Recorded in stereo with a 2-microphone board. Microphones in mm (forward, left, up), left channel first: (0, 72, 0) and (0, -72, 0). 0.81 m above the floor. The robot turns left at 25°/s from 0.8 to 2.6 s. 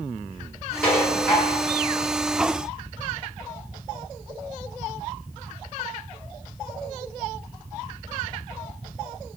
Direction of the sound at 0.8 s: 10° left (ahead or behind).